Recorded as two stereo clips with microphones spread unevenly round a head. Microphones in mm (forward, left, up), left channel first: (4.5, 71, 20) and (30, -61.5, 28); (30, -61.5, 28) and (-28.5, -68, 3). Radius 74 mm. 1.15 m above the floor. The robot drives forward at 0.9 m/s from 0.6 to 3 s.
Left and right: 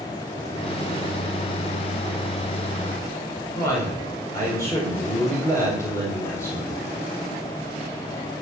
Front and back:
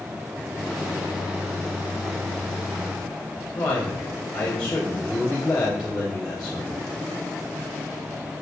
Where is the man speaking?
35° left, 5 m.